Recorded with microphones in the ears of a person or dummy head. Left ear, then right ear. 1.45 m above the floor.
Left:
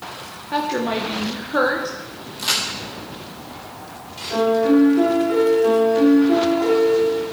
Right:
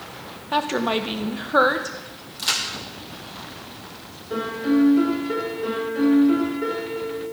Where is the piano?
10° right (ahead or behind), 4 m.